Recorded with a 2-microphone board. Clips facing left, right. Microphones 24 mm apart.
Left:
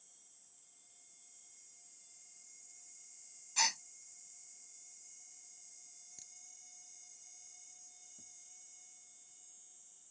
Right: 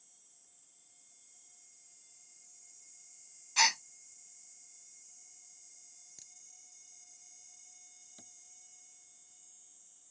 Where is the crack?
10° right (ahead or behind).